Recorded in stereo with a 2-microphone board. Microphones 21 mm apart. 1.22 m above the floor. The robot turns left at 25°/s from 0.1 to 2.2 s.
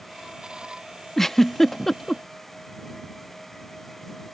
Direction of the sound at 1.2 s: 20° left (ahead or behind).